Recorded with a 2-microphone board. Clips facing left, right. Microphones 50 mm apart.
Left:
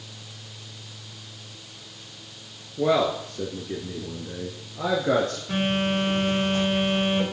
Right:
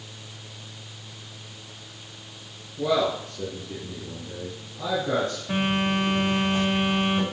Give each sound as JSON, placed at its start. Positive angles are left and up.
{"t": 2.8, "sound": "a man speaking", "side_deg": 25, "distance_m": 1.9}
{"t": 5.5, "sound": "a phone buzzing", "side_deg": -15, "distance_m": 5.5}